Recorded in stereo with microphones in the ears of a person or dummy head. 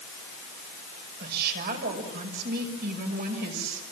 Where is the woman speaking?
55° right (ahead or behind), 6 m.